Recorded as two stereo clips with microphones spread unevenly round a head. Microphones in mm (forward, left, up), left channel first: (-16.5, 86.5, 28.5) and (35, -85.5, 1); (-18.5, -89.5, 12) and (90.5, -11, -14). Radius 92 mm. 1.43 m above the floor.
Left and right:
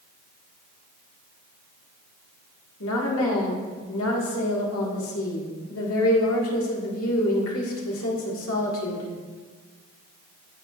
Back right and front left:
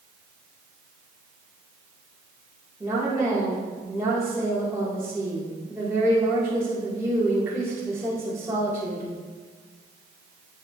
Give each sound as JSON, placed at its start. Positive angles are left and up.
{"t": 2.8, "sound": "a woman speaking", "azimuth_deg": 115, "distance_m": 1.7}